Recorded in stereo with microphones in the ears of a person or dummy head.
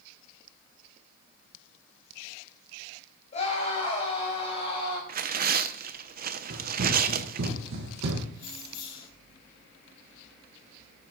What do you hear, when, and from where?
3.3 s a scream: 35° left (ahead or behind), 6.5 m; by 5.0 s 25° left (ahead or behind), 8 m
5.1 s tearing paper: 45° right (ahead or behind), 0.5 m
6.5 s running footsteps: 50° right (ahead or behind), 2.5 m; by 8.2 s 65° right (ahead or behind), 3 m
8.3 s keys jangling: 35° left (ahead or behind), 4.5 m